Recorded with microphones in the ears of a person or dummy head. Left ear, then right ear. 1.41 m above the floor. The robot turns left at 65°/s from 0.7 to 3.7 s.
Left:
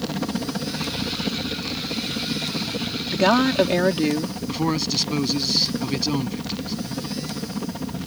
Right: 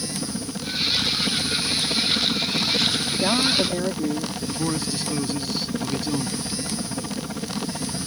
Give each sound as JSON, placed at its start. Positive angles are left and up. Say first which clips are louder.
{"t": 0.0, "sound": "a helicopter", "louder": "left 2 dB", "azimuth_deg": 35}
{"t": 3.1, "sound": "a woman speaking", "louder": "left 2 dB", "azimuth_deg": 105}
{"t": 4.5, "sound": "a man speaking", "louder": "left 5 dB", "side_deg": 15}